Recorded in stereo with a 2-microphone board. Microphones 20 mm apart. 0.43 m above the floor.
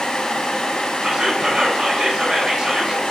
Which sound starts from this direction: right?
Whispering, at 1.0 s.